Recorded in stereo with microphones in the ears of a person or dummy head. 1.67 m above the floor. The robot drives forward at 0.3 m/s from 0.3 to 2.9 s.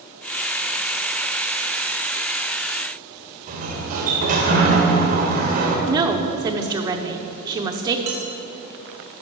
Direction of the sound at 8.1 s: 10° right (ahead or behind).